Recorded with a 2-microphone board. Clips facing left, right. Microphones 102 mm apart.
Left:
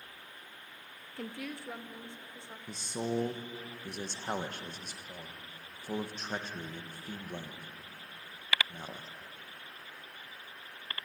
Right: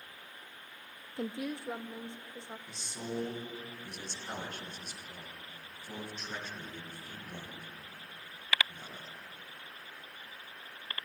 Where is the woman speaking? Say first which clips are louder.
Right 4 dB; 20° right (ahead or behind), 0.5 m.